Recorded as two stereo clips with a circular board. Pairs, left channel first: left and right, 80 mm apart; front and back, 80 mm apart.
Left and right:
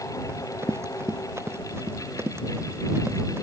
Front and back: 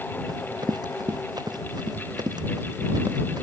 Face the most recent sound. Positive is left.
turn(degrees=-150)